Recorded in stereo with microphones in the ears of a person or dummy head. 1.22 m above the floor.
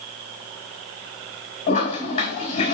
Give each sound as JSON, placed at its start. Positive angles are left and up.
{"t": 1.7, "sound": "a toilet flushing", "side_deg": 35, "distance_m": 4.0}